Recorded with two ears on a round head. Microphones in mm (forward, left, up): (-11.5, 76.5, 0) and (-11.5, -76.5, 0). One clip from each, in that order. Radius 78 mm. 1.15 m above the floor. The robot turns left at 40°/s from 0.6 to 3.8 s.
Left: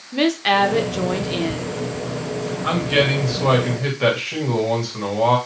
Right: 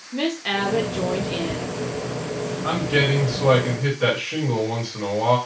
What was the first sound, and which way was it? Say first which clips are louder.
A woman speaking: left 7 dB; 50° left.